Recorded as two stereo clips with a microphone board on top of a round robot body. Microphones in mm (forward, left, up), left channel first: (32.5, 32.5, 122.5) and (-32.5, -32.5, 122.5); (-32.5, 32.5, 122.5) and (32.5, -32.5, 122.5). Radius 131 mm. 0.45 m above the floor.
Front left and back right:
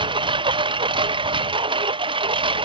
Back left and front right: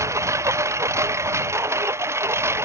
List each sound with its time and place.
0.0 s a lawn mower: 105° right